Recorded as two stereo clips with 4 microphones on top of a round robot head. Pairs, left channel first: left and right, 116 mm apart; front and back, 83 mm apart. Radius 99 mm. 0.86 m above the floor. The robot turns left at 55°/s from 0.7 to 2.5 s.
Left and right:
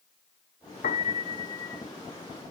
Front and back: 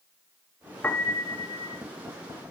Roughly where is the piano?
Left.